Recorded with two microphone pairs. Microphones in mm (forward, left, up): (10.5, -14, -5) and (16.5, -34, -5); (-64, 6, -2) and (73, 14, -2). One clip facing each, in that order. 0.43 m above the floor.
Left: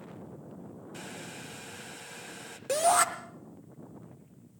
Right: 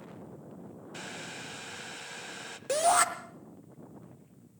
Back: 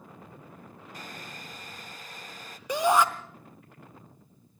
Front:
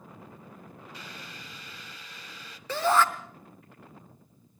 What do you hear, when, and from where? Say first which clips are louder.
0.9 s boiling: right 3 dB, back 5 dB; 135° right, 0.9 m
2.7 s a shout: even, back 1 dB; 140° right, 0.7 m